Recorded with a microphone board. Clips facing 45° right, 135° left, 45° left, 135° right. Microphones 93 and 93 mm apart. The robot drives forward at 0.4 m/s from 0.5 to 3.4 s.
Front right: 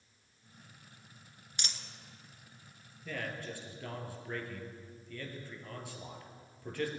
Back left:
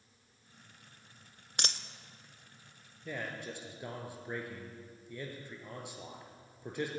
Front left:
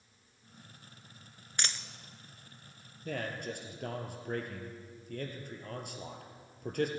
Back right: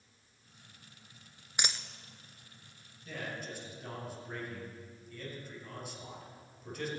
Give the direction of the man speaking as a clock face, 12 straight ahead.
10 o'clock.